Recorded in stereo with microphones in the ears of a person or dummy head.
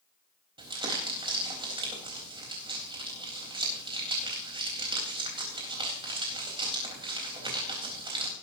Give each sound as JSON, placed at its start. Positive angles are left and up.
{"t": 0.6, "sound": "crumpling", "side_deg": -25, "distance_m": 4.0}